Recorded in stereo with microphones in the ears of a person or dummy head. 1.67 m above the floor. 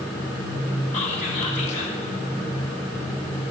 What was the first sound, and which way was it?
Whispering, 40° left (ahead or behind).